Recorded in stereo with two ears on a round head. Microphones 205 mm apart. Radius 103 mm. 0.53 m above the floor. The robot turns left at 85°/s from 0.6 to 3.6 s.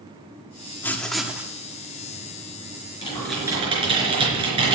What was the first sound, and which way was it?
Writing, 10° left (ahead or behind).